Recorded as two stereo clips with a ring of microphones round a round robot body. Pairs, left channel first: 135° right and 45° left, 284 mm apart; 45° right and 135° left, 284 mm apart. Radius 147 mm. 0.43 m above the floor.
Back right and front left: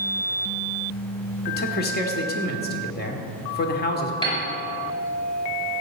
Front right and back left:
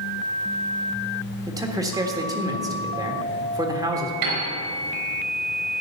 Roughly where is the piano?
Behind left.